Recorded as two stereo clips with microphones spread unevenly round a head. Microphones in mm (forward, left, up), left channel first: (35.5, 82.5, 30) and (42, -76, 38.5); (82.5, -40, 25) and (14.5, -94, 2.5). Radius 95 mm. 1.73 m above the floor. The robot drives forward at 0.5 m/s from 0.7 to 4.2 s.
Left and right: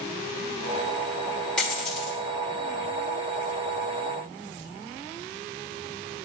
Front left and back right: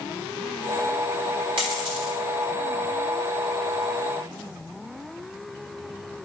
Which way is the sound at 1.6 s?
Straight behind.